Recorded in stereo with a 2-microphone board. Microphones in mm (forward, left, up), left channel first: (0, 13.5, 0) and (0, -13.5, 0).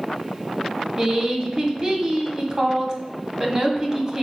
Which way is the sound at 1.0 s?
30° right (ahead or behind).